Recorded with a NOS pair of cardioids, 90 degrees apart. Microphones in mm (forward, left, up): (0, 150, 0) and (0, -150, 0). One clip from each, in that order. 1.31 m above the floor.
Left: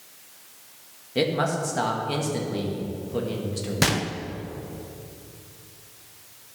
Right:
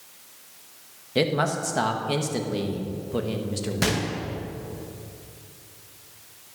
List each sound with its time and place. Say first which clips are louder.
1.1 s a man speaking: even; 25° right, 1.7 m
3.8 s a gunshot: left 2 dB; 35° left, 0.9 m